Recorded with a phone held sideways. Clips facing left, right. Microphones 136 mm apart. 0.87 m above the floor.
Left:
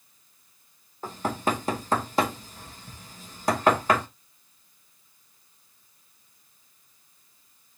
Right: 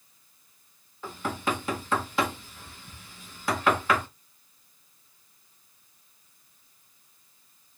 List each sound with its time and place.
1.0 s knocking: 40° left (ahead or behind), 0.9 m